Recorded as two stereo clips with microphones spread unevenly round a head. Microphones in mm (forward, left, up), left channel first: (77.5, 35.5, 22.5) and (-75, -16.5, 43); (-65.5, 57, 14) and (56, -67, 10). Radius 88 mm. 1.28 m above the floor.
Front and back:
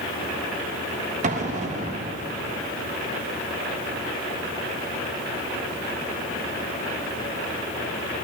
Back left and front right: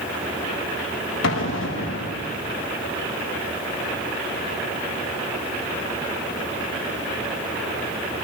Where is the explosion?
150° left, 1.3 m.